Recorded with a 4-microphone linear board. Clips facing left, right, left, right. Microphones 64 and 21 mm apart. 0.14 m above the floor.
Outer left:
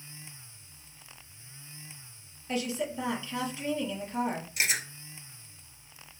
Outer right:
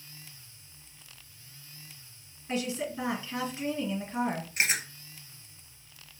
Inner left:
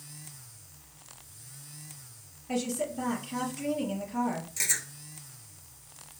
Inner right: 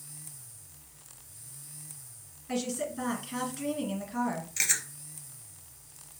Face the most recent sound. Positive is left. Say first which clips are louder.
# outer right 2 dB, inner right 3 dB
turn(degrees=-40)  # may be behind; listen again after turning